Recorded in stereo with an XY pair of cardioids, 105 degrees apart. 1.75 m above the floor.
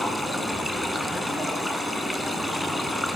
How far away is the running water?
About 9.5 m.